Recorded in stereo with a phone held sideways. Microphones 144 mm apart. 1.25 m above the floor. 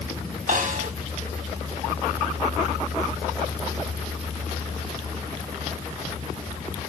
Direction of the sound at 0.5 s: 65° right (ahead or behind).